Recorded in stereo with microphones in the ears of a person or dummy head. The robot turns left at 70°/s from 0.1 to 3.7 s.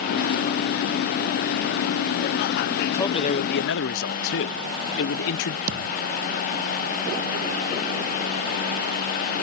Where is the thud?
50° right (ahead or behind).